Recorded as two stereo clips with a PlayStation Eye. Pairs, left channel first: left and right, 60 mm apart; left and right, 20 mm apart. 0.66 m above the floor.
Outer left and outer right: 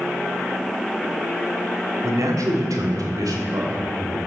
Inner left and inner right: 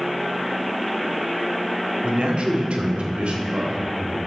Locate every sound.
2.0 s a man speaking: 60° right (ahead or behind), 1.2 m; by 4.2 s 75° right (ahead or behind), 2.5 m